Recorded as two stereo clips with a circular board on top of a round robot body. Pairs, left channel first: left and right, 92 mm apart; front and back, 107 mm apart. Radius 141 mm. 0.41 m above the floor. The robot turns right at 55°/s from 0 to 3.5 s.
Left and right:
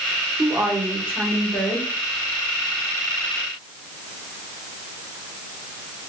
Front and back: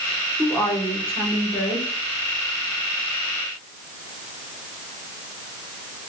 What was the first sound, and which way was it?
A woman speaking, 60° right.